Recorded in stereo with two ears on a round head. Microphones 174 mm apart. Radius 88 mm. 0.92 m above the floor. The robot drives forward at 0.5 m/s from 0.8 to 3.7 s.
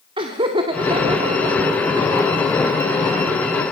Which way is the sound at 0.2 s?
25° right (ahead or behind).